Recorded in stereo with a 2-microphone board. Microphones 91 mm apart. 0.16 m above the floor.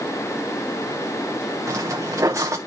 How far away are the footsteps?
About 1.4 m.